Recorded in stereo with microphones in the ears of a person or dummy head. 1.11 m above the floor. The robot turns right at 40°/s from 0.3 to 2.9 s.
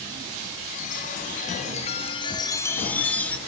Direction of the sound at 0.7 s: 80° left.